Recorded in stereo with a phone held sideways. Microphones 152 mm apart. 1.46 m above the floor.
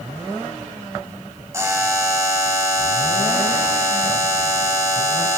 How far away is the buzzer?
About 1.4 m.